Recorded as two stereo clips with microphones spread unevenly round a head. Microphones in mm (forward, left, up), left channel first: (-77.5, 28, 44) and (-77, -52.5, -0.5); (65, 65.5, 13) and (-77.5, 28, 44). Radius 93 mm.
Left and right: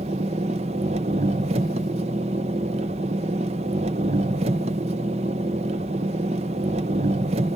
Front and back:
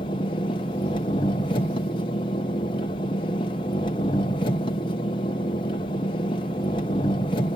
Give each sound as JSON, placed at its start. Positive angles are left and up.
{"t": 0.0, "sound": "an engine running", "azimuth_deg": -55, "distance_m": 0.9}